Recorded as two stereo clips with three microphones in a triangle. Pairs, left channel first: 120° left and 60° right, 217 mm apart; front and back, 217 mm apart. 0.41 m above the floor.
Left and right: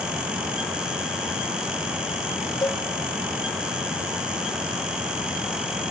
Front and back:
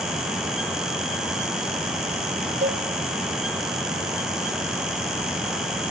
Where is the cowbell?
175° right, 1.8 m.